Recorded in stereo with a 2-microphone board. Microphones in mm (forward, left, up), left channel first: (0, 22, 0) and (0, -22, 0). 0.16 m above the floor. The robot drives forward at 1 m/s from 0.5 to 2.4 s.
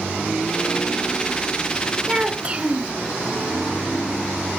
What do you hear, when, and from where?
2.1 s a child speaking: 20° right (ahead or behind), 1.3 m; by 2.9 s 25° right (ahead or behind), 1.1 m